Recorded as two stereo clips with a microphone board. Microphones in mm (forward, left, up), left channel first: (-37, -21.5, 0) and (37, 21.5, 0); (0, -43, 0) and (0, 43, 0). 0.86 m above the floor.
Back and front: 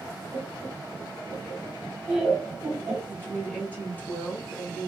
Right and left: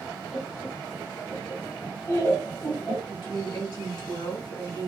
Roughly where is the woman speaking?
Right.